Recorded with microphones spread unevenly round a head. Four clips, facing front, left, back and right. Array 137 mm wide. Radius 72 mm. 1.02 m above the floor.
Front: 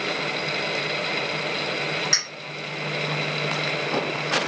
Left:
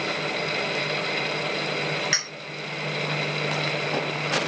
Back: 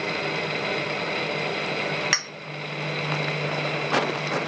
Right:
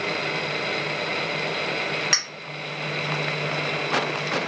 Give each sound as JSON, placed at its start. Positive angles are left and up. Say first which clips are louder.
{"t": 2.1, "sound": "a clink", "louder": "right 1 dB, back 3 dB", "azimuth_deg": -150, "distance_m": 0.9}